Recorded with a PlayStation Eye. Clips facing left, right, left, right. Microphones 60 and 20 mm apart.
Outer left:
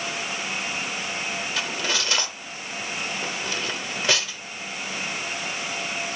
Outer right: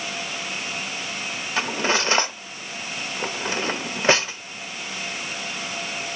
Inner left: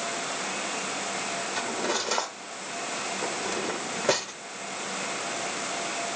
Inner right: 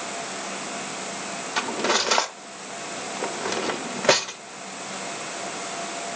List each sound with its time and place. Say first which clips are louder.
1.6 s cutlery clinking: outer right 7 dB, inner right 8 dB; 30° right (ahead or behind), 0.6 m